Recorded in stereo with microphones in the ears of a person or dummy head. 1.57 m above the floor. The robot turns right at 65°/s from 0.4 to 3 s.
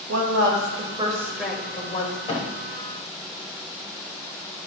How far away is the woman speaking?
About 1.5 m.